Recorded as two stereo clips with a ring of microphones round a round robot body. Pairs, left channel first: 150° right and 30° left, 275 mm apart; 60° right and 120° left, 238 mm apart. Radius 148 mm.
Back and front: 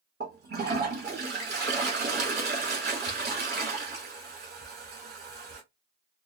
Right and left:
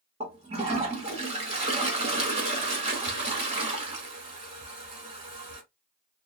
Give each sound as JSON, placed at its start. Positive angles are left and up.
{"t": 0.2, "sound": "a toilet flushing", "azimuth_deg": 65, "distance_m": 1.2}